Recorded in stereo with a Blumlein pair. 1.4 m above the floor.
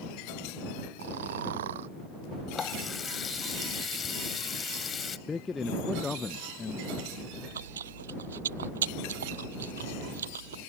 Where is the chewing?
65° right.